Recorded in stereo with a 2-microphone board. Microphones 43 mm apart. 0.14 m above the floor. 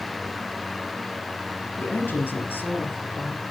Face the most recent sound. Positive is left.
turn(degrees=55)  # may be behind; listen again after turning